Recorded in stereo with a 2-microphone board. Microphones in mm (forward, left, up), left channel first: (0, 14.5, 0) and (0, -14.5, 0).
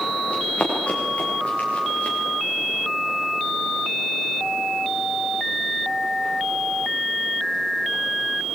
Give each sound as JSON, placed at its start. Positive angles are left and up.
{"t": 0.3, "sound": "running footsteps", "side_deg": 40, "distance_m": 7.5}